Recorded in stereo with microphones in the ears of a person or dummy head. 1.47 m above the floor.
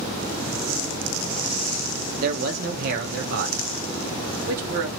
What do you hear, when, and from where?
2.2 s a man speaking: 50° right (ahead or behind), 0.7 m